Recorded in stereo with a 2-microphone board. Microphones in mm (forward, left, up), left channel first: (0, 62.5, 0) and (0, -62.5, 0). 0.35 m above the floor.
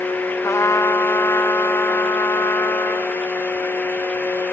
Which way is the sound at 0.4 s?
25° left (ahead or behind).